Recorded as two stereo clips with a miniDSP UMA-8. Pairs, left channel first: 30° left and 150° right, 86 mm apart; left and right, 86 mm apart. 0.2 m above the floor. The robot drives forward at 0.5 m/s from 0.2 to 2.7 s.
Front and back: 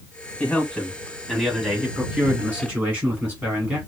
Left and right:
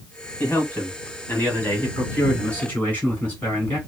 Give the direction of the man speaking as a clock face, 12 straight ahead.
9 o'clock.